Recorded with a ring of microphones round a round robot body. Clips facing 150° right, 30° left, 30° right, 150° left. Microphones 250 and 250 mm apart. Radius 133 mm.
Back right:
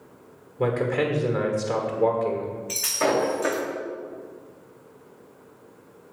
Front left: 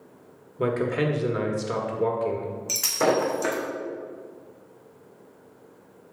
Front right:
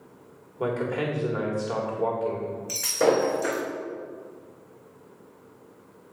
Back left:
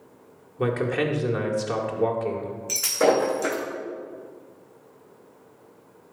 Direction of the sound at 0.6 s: 100° left.